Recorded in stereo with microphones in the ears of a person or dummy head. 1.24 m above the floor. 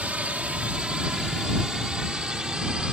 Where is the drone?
5° right (ahead or behind).